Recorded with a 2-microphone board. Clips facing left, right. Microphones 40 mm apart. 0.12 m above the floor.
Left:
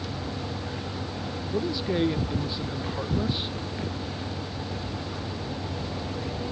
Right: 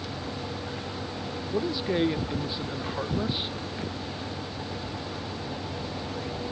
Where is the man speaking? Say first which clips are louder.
Even; 10° right (ahead or behind).